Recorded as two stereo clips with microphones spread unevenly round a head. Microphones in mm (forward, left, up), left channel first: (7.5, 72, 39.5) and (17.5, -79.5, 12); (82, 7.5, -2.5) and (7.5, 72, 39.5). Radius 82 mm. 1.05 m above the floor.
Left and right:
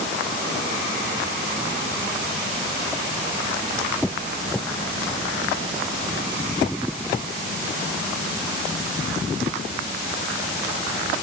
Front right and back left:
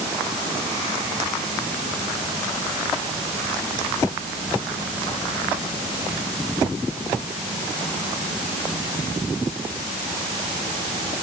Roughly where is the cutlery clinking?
No cutlery clinking in this recording.